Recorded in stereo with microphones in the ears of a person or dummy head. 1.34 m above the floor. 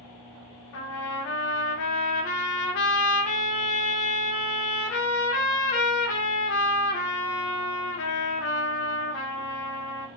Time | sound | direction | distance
0.7 | a trumpet | 75° left (ahead or behind) | 0.7 m